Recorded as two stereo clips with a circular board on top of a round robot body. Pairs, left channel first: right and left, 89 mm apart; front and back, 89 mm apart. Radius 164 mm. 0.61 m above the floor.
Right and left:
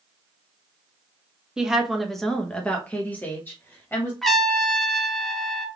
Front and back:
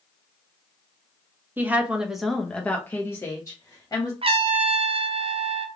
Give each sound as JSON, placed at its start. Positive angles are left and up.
{"t": 1.6, "sound": "a woman speaking", "azimuth_deg": 160, "distance_m": 1.1}
{"t": 4.2, "sound": "a trumpet", "azimuth_deg": -175, "distance_m": 0.6}